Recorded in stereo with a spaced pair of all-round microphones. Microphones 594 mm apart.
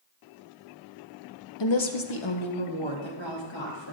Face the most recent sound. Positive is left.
turn(degrees=45)  # may be behind; listen again after turning